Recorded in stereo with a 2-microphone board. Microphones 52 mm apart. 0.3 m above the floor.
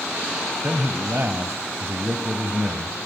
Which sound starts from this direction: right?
A man speaking, at 0.6 s.